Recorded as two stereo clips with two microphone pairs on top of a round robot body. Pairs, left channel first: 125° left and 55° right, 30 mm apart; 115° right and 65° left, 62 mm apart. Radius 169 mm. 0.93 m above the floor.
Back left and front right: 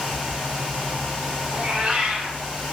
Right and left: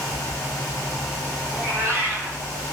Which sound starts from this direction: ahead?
A cat meowing, at 1.5 s.